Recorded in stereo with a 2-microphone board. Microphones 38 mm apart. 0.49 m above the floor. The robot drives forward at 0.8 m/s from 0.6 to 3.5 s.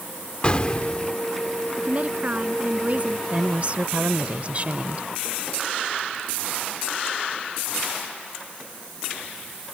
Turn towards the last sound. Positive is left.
turn(degrees=-40)  # may be behind; listen again after turning